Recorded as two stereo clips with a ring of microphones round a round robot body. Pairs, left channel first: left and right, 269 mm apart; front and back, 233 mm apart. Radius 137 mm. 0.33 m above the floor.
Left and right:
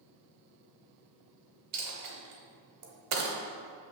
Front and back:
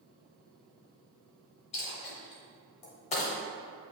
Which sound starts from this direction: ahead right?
A dropped coin, at 1.7 s.